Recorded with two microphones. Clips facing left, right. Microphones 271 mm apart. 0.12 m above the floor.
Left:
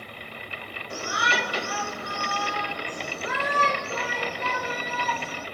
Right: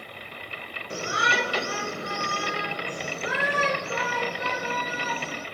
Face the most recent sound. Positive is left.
turn(degrees=-10)  # may be behind; listen again after turning